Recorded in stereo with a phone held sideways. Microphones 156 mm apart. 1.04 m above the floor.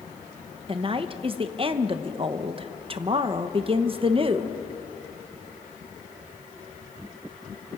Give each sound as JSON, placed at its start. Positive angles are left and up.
{"t": 0.7, "sound": "a woman speaking", "side_deg": -35, "distance_m": 1.1}